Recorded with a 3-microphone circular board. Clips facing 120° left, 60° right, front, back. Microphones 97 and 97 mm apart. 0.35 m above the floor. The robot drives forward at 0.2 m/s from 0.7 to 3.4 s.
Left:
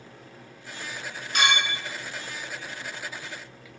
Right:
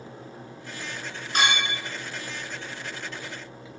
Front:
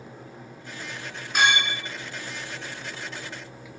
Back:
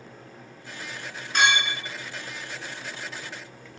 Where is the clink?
75° right, 0.8 m; by 1.8 s 85° right, 0.8 m.